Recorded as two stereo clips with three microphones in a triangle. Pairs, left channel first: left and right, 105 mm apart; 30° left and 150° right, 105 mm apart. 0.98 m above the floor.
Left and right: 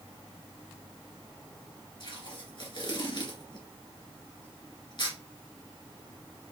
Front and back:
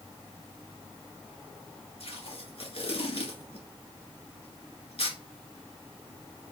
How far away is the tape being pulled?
About 1.8 m.